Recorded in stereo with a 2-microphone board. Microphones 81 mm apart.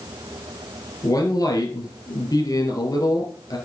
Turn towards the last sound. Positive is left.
turn(degrees=50)  # may be behind; listen again after turning